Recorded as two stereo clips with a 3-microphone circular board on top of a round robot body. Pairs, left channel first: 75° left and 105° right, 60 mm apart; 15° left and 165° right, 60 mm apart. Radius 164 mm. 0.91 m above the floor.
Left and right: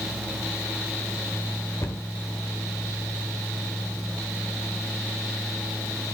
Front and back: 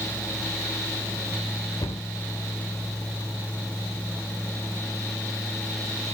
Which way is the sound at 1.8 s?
30° left.